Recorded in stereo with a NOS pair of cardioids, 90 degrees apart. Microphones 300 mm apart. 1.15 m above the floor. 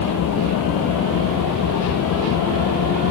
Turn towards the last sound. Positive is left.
turn(degrees=70)